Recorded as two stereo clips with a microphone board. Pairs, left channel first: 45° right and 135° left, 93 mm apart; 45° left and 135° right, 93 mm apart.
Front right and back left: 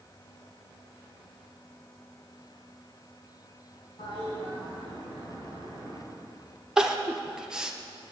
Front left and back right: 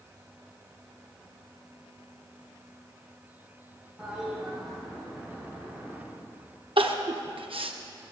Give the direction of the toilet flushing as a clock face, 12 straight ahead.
2 o'clock.